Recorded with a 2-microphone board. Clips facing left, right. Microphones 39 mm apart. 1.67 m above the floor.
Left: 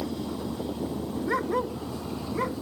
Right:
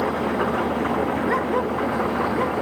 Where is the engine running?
70° right (ahead or behind).